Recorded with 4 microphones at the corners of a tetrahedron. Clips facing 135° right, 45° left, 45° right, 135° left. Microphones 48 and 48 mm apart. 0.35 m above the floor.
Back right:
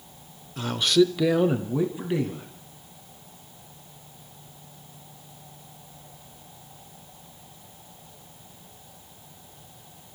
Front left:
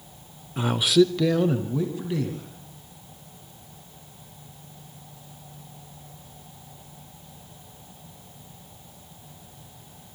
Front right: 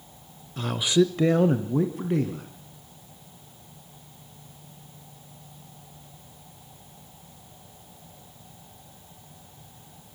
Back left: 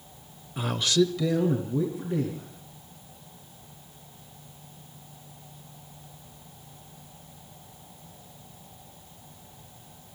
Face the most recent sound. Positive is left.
turn(degrees=-70)